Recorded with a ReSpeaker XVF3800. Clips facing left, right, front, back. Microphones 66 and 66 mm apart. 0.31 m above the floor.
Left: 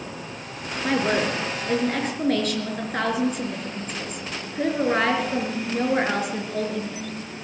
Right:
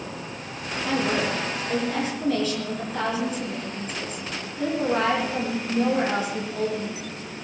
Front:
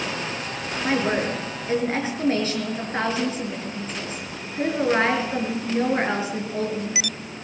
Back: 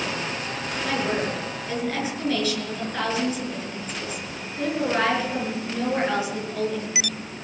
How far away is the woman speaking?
About 5.5 m.